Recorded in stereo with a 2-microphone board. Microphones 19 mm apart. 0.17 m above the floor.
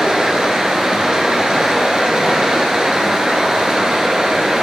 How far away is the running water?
About 1.0 m.